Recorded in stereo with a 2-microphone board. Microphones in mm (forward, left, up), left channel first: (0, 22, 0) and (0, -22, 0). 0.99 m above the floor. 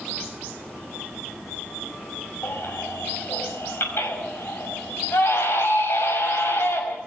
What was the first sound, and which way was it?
A baby crying, 65° left (ahead or behind).